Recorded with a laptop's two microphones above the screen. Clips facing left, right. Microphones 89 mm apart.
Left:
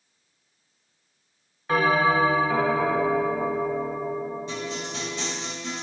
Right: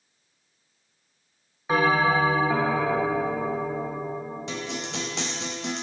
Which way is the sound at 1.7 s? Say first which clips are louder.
Even; 10° right (ahead or behind).